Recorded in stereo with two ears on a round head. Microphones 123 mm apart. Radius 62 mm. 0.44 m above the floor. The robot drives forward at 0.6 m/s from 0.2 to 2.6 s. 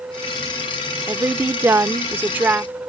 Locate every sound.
1.1 s a woman speaking: 15° right (ahead or behind)